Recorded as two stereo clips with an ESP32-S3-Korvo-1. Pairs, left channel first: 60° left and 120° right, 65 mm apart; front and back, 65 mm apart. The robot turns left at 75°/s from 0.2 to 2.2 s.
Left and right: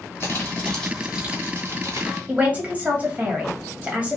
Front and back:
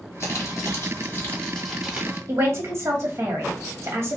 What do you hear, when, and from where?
0.2 s crumpling: 20° left, 1.4 m; by 2.2 s 125° right, 1.4 m
2.3 s a man speaking: 175° right, 1.2 m